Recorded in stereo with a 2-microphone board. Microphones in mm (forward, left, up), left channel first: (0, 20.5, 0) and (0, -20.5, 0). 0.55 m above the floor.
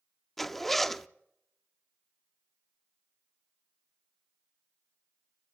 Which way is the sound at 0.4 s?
5° left (ahead or behind).